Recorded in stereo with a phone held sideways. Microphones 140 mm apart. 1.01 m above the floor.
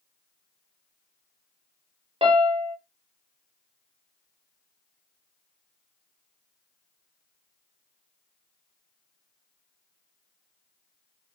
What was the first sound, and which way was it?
A piano, 45° right (ahead or behind).